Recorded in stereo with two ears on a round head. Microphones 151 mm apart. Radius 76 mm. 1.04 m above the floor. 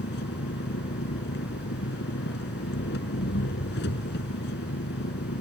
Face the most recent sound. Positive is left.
turn(degrees=65)  # may be behind; listen again after turning